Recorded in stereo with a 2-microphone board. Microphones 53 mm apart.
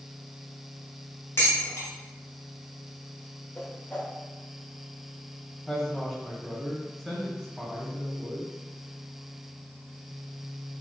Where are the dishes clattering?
55° left (ahead or behind), 1.3 m.